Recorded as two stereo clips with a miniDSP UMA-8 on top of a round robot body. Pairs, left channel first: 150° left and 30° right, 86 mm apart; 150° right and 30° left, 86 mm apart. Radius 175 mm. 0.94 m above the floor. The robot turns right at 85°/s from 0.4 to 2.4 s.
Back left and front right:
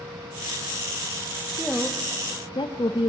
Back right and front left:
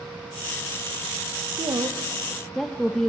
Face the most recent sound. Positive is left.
turn(degrees=125)